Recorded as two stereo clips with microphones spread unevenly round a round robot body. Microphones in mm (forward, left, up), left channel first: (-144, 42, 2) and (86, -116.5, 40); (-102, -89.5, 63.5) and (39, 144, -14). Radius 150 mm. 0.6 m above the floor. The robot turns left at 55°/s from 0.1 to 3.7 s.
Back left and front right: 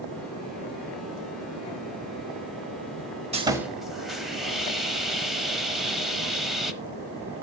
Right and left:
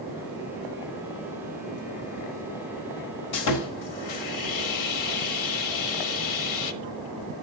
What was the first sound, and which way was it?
Sawing, 100° right.